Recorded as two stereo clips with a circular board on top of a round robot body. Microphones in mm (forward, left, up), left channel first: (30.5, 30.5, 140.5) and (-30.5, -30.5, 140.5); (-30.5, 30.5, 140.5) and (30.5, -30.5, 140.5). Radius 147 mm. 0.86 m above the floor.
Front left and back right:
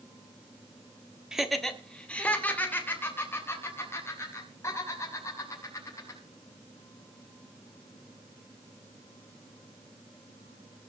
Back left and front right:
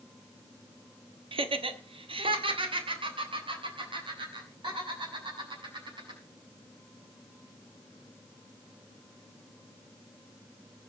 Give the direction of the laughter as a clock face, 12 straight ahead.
2 o'clock.